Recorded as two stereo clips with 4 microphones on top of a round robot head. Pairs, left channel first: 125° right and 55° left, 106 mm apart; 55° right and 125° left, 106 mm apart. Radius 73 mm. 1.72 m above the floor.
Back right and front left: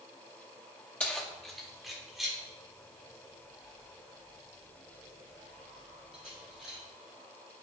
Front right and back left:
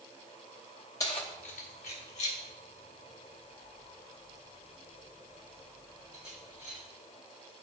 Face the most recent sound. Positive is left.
turn(degrees=-30)